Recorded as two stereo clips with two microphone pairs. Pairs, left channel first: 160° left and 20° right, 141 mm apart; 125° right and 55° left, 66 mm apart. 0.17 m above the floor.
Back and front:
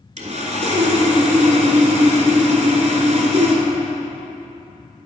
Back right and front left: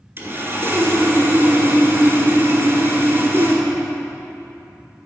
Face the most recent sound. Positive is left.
turn(degrees=5)